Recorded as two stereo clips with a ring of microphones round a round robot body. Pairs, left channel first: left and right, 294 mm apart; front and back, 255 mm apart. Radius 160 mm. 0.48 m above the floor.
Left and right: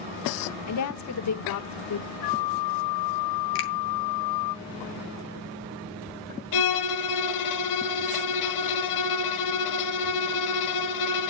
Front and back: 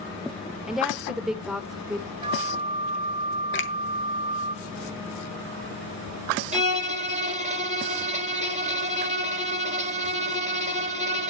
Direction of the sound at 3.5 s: 45° left.